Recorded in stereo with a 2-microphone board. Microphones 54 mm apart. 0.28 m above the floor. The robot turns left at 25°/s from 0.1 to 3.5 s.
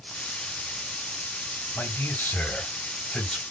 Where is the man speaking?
50° left, 2.5 m; by 3.4 s 10° left, 2.5 m.